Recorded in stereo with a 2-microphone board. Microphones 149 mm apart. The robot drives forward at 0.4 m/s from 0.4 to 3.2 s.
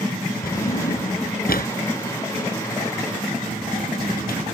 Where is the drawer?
75° left (ahead or behind); by 4.5 s 85° left.